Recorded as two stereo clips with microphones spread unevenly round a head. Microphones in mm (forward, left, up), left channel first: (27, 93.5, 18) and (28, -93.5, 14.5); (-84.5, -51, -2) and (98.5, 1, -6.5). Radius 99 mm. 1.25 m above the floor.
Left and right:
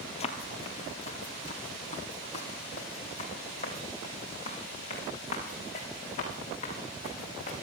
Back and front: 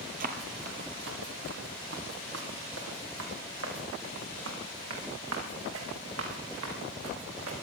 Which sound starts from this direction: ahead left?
Running footsteps, at 0.2 s.